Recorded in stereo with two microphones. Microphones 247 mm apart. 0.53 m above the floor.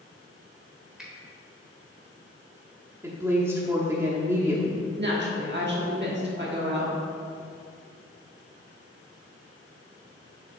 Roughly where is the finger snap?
Centre.